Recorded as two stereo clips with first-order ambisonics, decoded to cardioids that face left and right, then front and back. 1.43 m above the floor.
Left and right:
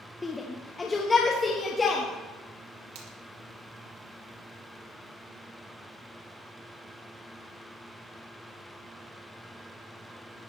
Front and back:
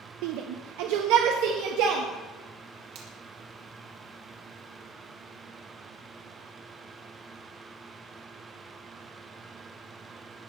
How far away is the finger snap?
About 2.5 m.